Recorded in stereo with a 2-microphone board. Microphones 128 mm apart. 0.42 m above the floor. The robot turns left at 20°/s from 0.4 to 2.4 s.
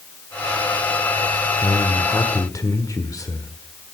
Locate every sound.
1.6 s a man speaking: 20° left (ahead or behind), 1.4 m; by 3.5 s 25° left (ahead or behind), 1.4 m